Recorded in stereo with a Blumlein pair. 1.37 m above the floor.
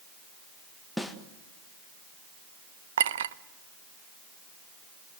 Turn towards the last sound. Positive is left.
turn(degrees=-60)